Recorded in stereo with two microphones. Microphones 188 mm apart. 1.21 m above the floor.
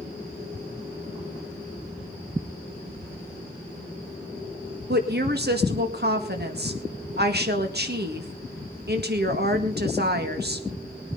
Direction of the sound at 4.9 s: 60° right (ahead or behind).